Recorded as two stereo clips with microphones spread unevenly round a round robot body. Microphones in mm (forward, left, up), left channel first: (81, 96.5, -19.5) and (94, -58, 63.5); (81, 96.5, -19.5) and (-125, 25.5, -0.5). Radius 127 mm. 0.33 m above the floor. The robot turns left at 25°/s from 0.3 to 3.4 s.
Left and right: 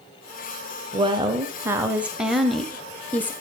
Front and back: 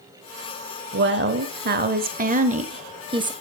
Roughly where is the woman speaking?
Behind.